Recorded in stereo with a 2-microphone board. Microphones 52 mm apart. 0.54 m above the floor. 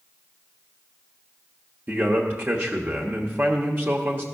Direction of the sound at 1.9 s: 40° right (ahead or behind).